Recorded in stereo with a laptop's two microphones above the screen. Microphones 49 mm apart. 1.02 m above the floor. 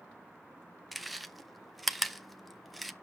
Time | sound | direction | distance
0.9 | chewing | centre (ahead or behind) | 0.6 m